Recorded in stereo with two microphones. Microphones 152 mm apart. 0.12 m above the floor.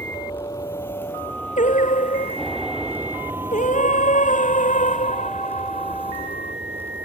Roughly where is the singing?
Left.